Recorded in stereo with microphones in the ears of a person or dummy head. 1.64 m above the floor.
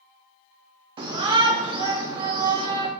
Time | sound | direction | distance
1.0 | a shout | 30° right (ahead or behind) | 0.6 m